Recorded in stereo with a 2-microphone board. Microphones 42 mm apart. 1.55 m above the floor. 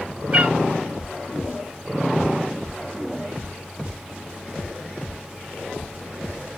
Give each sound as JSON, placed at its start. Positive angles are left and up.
{"t": 0.3, "sound": "a cat meowing", "side_deg": -25, "distance_m": 4.0}